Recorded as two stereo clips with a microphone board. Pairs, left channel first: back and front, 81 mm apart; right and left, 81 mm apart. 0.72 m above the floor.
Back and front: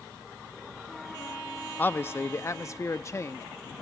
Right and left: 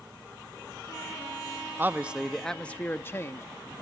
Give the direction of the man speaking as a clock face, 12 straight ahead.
8 o'clock.